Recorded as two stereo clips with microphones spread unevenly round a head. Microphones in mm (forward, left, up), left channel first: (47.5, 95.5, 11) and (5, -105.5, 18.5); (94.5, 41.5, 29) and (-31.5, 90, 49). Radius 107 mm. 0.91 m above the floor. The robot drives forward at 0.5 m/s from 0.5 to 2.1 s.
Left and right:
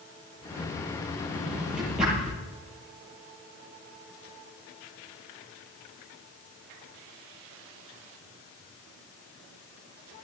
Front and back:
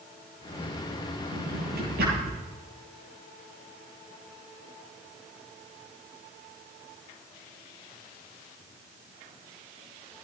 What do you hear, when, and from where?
1.3 s a drawer: 170° left, 9.5 m